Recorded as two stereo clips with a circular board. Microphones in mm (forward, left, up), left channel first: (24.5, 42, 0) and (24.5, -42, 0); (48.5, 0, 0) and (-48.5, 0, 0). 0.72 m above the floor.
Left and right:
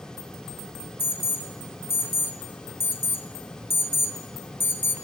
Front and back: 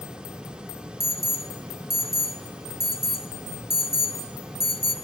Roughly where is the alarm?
Behind left.